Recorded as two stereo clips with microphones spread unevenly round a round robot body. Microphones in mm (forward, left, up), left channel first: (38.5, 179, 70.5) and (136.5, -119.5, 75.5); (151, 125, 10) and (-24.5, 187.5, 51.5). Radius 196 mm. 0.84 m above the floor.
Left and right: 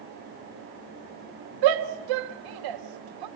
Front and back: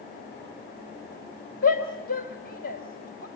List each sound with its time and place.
1.6 s a shout: 80° right, 2 m